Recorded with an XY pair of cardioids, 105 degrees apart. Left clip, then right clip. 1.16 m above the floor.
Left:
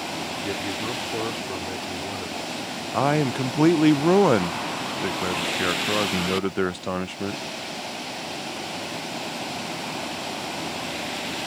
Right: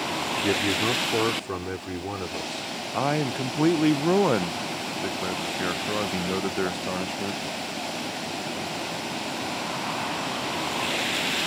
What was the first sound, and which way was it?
A man speaking, 40° right.